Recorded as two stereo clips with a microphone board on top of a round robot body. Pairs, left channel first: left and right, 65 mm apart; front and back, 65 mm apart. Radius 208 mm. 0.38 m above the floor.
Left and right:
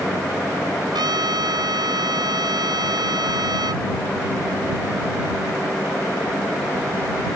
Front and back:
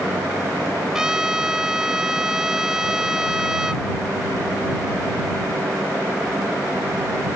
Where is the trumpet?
100° right.